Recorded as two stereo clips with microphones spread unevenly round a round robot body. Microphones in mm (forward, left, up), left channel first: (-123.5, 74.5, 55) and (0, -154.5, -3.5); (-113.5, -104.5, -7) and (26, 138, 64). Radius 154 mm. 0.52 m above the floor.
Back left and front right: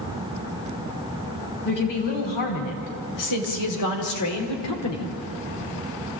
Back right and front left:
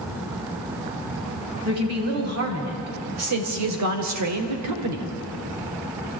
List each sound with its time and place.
1.6 s a woman speaking: 100° left, 4.5 m; by 5.1 s 80° left, 2 m